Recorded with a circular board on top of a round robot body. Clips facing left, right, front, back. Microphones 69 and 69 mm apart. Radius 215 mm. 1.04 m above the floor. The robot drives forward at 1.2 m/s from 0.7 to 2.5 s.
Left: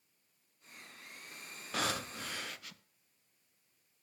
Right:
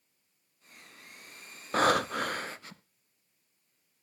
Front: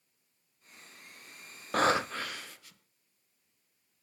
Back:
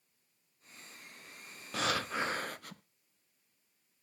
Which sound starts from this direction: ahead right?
Breathing, at 1.7 s.